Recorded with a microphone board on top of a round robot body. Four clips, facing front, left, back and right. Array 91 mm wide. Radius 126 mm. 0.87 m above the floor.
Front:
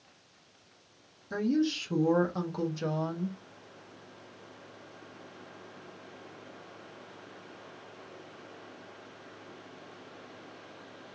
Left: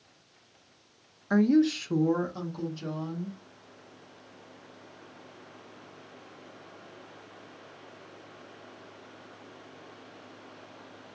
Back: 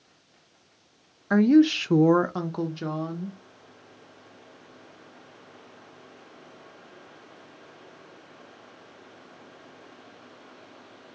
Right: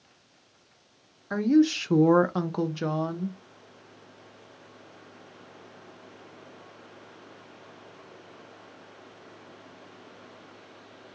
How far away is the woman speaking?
About 0.6 m.